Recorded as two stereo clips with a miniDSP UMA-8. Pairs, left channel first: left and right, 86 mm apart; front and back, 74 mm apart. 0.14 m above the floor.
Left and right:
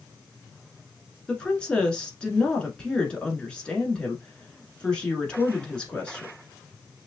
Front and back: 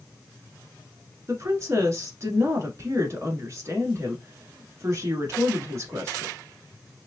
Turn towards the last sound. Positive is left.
turn(degrees=165)